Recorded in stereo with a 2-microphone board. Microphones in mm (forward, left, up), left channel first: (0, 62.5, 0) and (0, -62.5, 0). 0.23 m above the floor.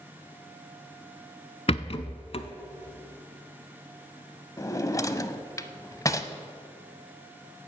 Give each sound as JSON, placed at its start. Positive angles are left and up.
{"t": 1.7, "sound": "a rattle", "side_deg": 50, "distance_m": 0.7}
{"t": 4.6, "sound": "a drawer", "side_deg": 25, "distance_m": 0.6}